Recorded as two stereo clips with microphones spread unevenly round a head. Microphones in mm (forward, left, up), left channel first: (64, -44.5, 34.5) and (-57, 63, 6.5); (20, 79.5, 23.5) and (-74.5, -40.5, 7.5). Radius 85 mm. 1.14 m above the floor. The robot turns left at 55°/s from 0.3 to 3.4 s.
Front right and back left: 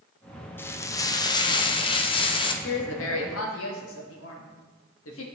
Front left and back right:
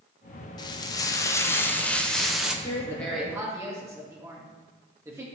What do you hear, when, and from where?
0.6 s frying: 40° left, 0.5 m; by 2.5 s 65° right, 0.5 m
2.6 s a woman speaking: 10° right, 1.1 m; by 5.2 s 55° right, 1.1 m